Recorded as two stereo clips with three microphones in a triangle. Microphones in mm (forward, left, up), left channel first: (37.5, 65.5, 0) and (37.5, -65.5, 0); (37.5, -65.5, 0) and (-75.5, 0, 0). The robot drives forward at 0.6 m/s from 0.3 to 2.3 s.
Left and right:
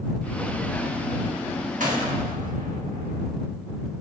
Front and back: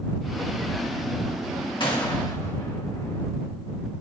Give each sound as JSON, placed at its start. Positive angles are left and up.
{"t": 1.8, "sound": "a gunshot", "azimuth_deg": -80, "distance_m": 1.7}